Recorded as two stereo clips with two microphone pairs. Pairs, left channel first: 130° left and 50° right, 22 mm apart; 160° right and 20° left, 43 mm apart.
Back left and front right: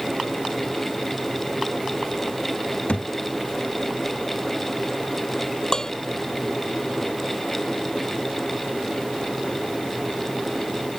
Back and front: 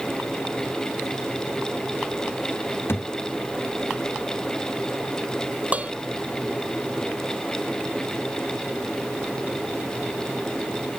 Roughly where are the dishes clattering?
Left.